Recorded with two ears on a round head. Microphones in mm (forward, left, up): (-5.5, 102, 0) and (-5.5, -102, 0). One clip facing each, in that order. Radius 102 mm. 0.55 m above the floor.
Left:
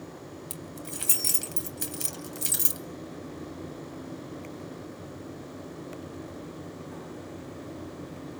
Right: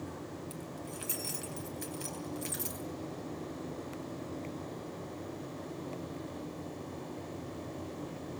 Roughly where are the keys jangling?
Left.